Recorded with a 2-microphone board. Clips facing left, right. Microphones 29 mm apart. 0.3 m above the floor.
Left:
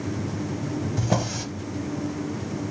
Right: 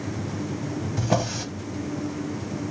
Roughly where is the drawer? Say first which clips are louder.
Right 3 dB; centre.